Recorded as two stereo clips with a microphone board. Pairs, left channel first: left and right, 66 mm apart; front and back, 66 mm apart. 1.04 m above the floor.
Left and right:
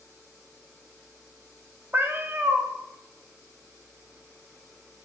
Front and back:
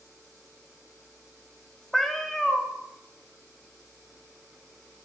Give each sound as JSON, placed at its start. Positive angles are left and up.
{"t": 1.9, "sound": "a cat meowing", "azimuth_deg": -85, "distance_m": 0.6}